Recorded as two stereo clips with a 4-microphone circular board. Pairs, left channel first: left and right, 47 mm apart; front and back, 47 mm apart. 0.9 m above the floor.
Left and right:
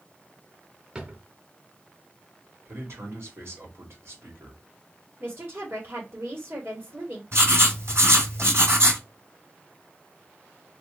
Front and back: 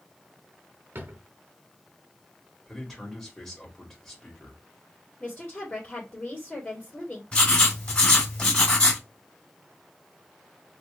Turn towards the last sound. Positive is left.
turn(degrees=-65)